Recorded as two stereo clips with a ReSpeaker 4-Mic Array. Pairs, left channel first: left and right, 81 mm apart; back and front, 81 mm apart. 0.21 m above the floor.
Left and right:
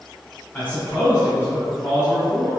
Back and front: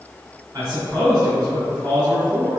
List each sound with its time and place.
0.5 s a man speaking: 30° left, 1.9 m